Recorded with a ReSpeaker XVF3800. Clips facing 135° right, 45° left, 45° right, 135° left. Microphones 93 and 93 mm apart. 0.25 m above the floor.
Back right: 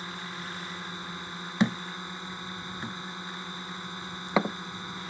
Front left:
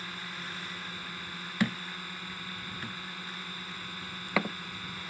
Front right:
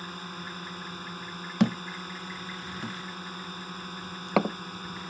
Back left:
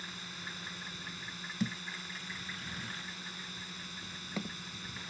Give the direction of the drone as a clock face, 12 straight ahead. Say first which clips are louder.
Back right 3 dB, front right 7 dB; 2 o'clock.